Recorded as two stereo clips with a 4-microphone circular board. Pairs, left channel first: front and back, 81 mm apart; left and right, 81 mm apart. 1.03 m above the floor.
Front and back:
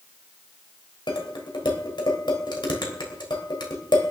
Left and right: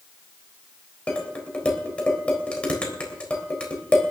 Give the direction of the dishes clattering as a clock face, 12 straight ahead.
12 o'clock.